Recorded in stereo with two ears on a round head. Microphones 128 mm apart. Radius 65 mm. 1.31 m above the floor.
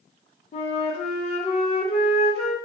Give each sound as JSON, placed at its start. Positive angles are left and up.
{"t": 0.5, "sound": "a flute", "side_deg": 45, "distance_m": 0.5}